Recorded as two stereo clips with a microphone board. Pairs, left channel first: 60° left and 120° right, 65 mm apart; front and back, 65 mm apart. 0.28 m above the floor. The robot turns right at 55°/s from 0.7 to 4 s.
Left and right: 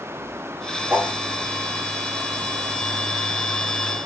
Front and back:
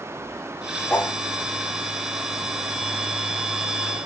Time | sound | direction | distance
0.9 | a whoosh | 65° right | 0.7 m